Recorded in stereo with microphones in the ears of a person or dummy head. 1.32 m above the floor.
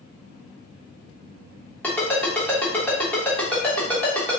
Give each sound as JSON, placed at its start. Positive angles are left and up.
{"t": 1.8, "sound": "a ringtone", "side_deg": 15, "distance_m": 0.9}